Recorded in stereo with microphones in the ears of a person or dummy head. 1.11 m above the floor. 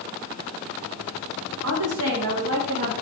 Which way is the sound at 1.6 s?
75° right (ahead or behind).